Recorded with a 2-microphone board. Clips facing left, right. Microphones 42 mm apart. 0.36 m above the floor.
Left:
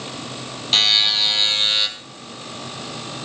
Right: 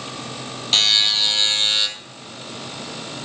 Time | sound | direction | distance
0.7 | a buzzer | 5° left (ahead or behind) | 1.8 m